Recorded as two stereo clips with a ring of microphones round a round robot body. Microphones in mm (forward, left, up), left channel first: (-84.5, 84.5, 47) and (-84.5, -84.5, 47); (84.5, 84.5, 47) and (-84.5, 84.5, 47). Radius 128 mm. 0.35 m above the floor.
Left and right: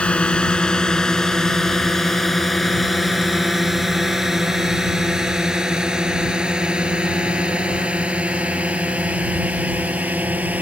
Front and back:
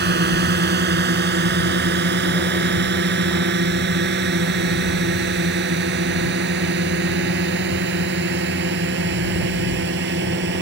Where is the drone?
175° left; by 10.6 s 170° right.